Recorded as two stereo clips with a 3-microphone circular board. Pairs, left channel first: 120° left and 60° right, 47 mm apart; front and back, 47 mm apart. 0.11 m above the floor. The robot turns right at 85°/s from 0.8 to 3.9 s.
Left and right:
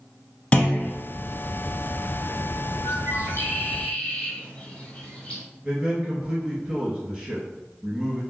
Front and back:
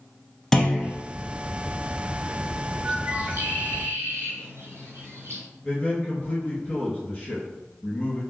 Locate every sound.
0.5 s a clunk: 80° left, 0.9 m; by 0.9 s 90° left, 0.9 m
2.8 s a bird: 95° left, 1.7 m; by 5.4 s 175° right, 1.7 m
5.6 s a man speaking: 25° left, 1.6 m